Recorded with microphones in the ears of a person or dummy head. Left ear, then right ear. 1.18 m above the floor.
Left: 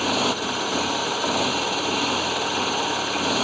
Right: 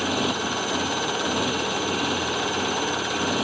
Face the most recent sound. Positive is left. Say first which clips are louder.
# left 2 dB
turn(degrees=60)  # may be behind; listen again after turning